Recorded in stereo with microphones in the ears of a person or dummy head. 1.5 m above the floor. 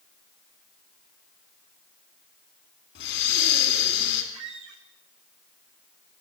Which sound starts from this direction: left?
Breathing, at 3.0 s.